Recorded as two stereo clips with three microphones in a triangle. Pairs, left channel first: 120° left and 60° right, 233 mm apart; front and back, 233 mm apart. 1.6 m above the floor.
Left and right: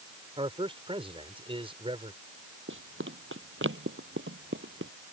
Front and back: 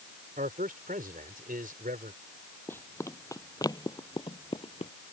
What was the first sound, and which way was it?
A man speaking, 125° right.